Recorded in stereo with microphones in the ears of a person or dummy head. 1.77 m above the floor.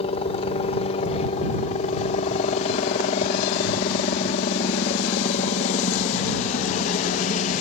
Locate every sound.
0.0 s a helicopter: 35° left (ahead or behind); by 7.6 s 40° left (ahead or behind)